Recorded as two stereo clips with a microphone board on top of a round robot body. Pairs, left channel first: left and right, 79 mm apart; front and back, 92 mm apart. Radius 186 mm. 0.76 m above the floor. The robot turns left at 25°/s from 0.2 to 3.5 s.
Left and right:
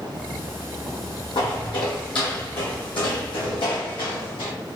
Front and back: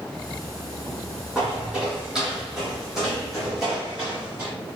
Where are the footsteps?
100° left, 1.6 m; by 4.5 s 105° left, 2 m.